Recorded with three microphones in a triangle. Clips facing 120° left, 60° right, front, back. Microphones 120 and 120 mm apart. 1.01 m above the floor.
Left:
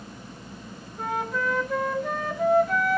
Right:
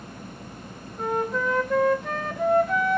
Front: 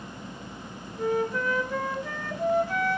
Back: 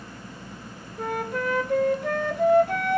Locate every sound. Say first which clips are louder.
1.0 s a flute: right 3 dB, front 2 dB; 150° right, 1.0 m